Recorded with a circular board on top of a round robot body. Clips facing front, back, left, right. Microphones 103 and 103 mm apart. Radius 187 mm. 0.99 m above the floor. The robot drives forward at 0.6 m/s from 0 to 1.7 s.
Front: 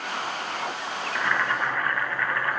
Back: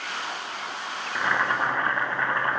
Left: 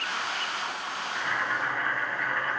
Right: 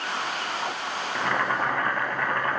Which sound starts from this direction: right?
Boiling, at 1.1 s.